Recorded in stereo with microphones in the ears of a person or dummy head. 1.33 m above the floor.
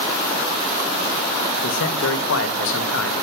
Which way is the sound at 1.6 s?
75° left (ahead or behind).